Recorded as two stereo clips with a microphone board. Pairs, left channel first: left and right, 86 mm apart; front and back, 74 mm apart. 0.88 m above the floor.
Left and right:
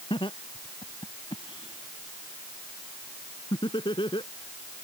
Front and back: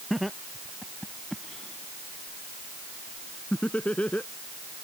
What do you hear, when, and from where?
0.1 s laughter: 90° left; by 4.3 s 70° left